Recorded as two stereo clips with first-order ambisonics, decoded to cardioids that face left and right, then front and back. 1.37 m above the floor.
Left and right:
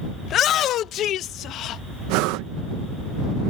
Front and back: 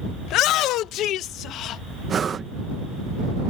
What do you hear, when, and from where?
0.2 s a shout: 35° left; by 1.8 s 45° left
2.1 s breathing: 110° right